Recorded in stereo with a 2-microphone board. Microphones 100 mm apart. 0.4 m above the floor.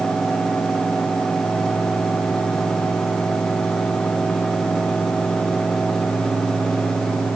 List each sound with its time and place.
Only background noise.